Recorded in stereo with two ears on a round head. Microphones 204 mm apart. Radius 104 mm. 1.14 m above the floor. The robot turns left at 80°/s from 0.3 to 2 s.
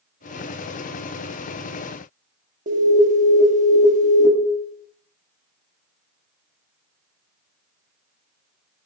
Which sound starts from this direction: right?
An alarm, at 2.7 s.